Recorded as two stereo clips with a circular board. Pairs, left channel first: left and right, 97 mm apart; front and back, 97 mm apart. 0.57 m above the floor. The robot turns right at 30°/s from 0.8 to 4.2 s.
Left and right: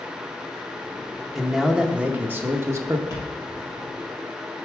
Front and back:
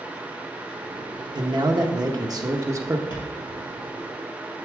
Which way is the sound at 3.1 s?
35° right.